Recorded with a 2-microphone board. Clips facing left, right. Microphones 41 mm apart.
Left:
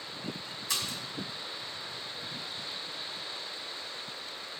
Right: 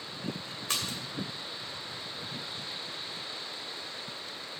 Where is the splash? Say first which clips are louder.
Right 1 dB; 55° right (ahead or behind), 2.5 m.